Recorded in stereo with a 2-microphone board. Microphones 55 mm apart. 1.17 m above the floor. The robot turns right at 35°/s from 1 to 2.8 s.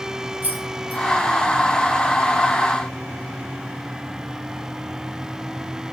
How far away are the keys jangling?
About 5 m.